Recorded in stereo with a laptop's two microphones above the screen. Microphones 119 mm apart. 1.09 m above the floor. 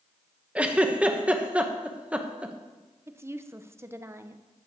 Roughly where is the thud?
No thud in this recording.